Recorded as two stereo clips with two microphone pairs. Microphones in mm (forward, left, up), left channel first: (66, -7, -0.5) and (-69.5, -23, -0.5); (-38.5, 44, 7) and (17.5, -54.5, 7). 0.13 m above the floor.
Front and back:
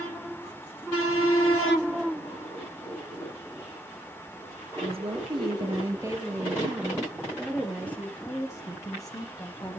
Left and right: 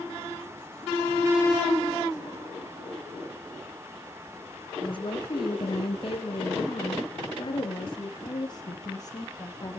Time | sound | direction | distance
4.8 | a woman speaking | 155° left | 2.5 m